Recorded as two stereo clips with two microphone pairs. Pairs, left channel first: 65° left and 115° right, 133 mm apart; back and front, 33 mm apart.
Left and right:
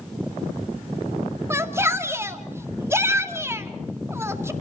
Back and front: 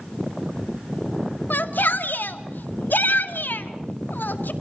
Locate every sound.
1.5 s a shout: 175° left, 2 m